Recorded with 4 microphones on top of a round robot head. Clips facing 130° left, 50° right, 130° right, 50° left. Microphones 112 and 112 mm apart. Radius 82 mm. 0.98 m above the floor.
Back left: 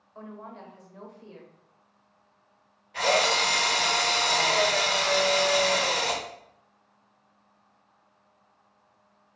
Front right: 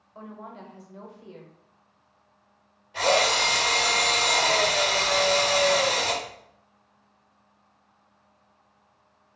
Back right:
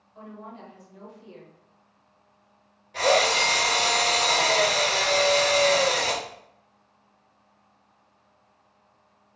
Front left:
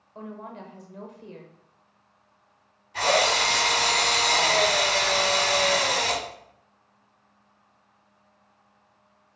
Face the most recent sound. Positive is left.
turn(degrees=-125)